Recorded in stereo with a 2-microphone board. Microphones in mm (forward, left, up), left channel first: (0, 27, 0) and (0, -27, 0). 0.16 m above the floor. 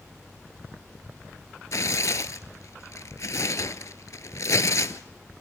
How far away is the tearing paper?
About 0.6 m.